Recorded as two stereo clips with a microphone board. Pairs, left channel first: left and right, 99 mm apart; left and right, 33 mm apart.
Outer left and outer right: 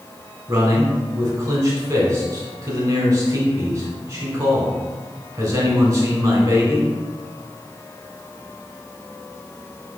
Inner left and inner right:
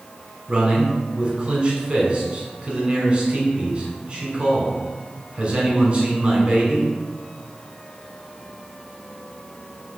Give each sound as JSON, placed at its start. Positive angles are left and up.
{"t": 0.5, "sound": "a man speaking", "side_deg": -35, "distance_m": 1.2}